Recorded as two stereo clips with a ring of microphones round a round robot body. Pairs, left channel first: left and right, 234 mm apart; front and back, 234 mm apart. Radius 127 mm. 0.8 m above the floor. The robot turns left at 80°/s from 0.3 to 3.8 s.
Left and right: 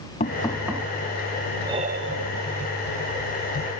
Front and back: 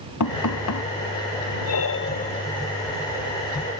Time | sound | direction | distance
0.2 | knocking | 25° left | ?
1.6 | breathing | 10° right | ?